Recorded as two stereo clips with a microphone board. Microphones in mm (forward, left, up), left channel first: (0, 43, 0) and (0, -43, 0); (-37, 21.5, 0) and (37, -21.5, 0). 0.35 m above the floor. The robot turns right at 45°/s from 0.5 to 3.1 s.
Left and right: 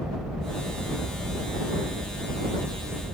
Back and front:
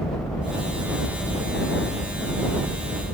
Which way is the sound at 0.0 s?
170° right.